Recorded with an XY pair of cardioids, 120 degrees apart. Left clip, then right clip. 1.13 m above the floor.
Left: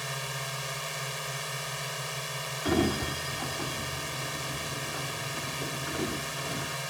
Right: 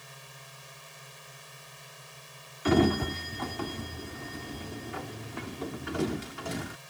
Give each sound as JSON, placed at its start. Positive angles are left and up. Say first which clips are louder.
{"t": 0.0, "sound": "a drone", "louder": "left 14 dB", "azimuth_deg": 65}
{"t": 2.6, "sound": "a sliding door", "louder": "right 3 dB", "azimuth_deg": -20}